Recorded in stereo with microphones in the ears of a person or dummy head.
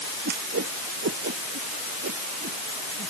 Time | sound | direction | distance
0.2 | a whoosh | 55° right (ahead or behind) | ?